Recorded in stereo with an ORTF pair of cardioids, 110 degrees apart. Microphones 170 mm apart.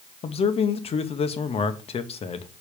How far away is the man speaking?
About 1.0 m.